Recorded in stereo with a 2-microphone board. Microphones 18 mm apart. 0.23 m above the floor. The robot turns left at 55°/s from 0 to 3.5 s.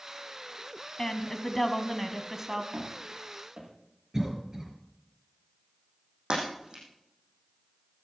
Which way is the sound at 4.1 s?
25° right (ahead or behind).